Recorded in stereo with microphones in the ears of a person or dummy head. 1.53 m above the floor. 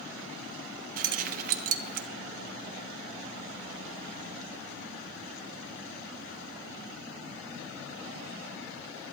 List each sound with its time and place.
1.0 s keys jangling: 50° right (ahead or behind), 0.7 m